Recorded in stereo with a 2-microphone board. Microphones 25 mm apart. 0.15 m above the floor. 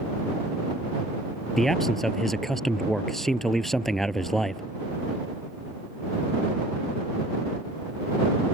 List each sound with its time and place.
1.6 s a man speaking: 10° left (ahead or behind)